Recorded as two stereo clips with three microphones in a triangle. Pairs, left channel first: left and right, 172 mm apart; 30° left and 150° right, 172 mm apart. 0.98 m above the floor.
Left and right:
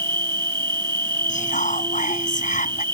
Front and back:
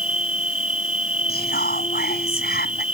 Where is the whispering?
50° left.